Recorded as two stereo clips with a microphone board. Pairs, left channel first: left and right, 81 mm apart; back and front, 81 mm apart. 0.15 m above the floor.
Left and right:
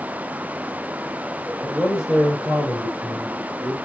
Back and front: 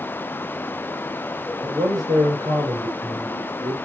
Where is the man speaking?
15° right, 2.5 m; by 3.7 s 25° right, 3.5 m.